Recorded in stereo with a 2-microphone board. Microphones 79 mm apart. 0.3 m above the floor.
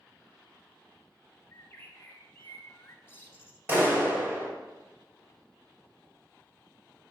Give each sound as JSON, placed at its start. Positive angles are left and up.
{"t": 1.5, "sound": "a bird", "side_deg": 30, "distance_m": 0.6}
{"t": 3.7, "sound": "a clap", "side_deg": -30, "distance_m": 1.6}